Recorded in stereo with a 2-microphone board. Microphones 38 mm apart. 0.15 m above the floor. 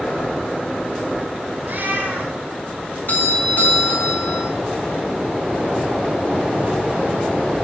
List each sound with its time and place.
1.6 s a cat meowing: 55° right (ahead or behind), 3.5 m
3.1 s a doorbell: 45° left (ahead or behind), 3 m